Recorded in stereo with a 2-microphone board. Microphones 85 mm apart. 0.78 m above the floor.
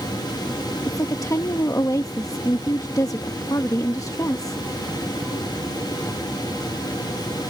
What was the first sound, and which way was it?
A woman speaking, 40° left (ahead or behind).